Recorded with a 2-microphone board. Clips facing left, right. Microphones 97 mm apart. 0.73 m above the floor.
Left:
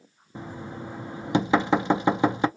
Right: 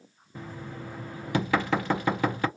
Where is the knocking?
20° left (ahead or behind), 0.5 m.